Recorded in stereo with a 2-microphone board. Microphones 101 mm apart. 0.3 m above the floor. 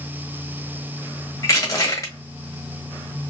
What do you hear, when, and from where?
1.4 s crushing: 30° left (ahead or behind), 1.3 m